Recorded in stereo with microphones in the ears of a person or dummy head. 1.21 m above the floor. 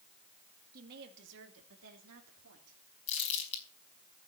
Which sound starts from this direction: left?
Crumpling, at 3.1 s.